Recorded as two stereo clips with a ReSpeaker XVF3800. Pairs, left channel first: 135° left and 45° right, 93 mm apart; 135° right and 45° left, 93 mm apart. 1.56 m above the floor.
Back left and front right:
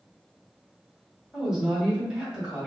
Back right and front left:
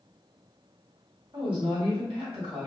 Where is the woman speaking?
40° left, 1.9 m.